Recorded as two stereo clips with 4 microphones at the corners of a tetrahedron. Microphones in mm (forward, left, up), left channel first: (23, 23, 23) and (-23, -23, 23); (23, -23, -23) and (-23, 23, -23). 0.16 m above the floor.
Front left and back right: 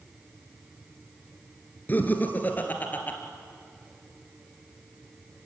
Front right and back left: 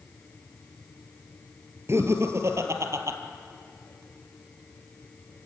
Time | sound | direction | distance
1.9 | laughter | 100° left | 2.5 m